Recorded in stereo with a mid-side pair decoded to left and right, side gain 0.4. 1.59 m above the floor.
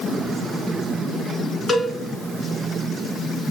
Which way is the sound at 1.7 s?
35° left.